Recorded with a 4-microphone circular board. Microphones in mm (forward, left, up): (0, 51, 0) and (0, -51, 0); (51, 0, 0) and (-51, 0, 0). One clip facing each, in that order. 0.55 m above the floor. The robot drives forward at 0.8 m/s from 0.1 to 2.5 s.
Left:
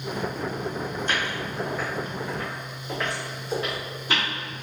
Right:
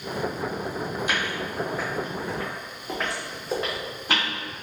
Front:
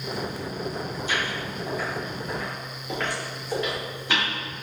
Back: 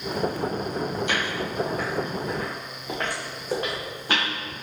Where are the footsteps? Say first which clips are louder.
Even, back 2 dB; 170° right, 1.3 m; by 4.2 s 135° right, 2.5 m.